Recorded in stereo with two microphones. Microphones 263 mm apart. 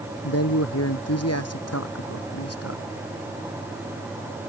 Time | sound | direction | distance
0.2 | a man speaking | 70° left (ahead or behind) | ?